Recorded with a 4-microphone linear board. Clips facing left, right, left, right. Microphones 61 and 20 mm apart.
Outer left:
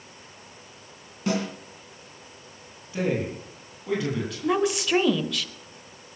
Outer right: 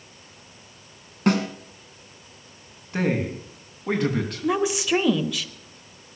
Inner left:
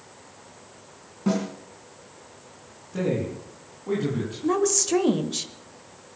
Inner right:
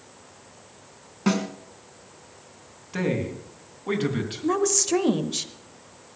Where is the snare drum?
55° right (ahead or behind), 2.5 m.